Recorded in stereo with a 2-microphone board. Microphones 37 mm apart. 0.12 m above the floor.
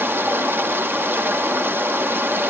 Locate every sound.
0.0 s running water: 75° right (ahead or behind), 2.5 m